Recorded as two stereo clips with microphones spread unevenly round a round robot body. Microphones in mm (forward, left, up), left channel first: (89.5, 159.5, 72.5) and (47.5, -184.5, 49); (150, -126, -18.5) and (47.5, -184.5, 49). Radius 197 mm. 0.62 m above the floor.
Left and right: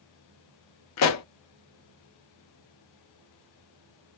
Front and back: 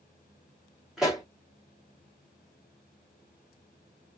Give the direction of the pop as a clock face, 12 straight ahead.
9 o'clock.